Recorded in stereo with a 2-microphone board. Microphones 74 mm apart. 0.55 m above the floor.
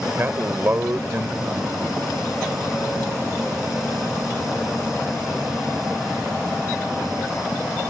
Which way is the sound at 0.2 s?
30° right (ahead or behind).